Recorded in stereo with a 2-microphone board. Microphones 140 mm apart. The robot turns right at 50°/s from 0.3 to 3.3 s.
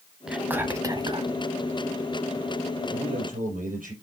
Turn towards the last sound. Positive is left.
turn(degrees=-80)